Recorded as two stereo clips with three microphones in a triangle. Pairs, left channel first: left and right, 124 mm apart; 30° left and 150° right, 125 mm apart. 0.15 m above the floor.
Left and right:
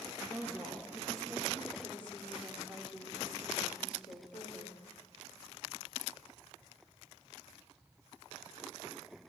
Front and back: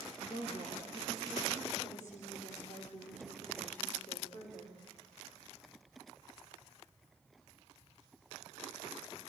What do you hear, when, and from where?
0.2 s a woman speaking: 10° right, 5 m; by 4.8 s 40° left, 6.5 m